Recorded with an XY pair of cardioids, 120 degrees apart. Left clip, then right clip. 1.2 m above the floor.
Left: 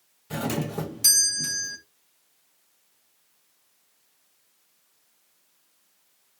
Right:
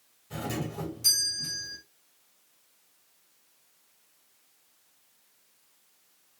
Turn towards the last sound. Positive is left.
turn(degrees=65)